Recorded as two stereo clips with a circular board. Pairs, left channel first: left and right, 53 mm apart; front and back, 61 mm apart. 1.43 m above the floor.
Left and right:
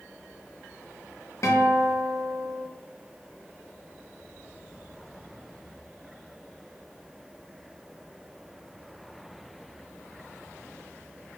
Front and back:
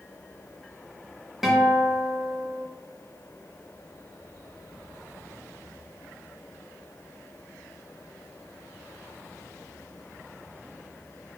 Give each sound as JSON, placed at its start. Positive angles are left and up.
{"t": 1.4, "sound": "a guitar", "azimuth_deg": 95, "distance_m": 0.8}